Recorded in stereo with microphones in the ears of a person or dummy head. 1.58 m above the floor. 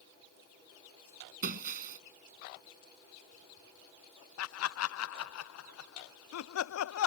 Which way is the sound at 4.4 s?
75° left (ahead or behind).